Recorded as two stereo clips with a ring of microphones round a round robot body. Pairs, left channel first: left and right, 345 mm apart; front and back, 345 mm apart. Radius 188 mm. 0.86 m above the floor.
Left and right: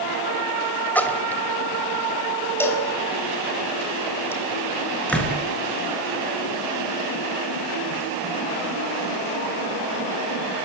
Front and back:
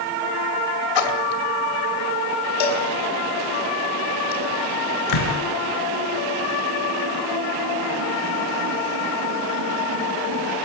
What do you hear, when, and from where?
0.9 s a splash: 5° left, 3 m
2.6 s a cowbell: 5° left, 6 m
5.1 s a door slam: 5° left, 7.5 m